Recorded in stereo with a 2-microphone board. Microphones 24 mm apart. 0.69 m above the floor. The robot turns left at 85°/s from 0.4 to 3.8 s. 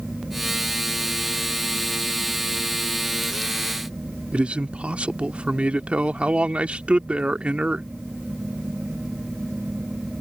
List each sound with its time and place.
4.3 s a man speaking: 65° right (ahead or behind)